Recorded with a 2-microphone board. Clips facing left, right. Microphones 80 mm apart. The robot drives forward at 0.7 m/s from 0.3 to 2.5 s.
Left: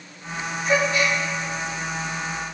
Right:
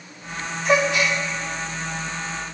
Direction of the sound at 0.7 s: 80° right.